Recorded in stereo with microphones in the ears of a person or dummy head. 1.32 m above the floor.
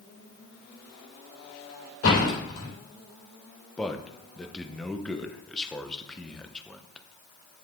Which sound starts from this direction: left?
A door slam, at 2.0 s.